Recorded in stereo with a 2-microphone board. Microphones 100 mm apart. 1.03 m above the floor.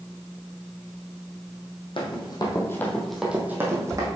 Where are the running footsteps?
55° left (ahead or behind), 1.9 m; by 4.1 s 35° right (ahead or behind), 2.5 m.